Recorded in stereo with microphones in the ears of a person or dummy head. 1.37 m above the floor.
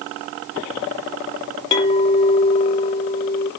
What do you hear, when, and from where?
1.7 s a clink: 30° left (ahead or behind), 0.9 m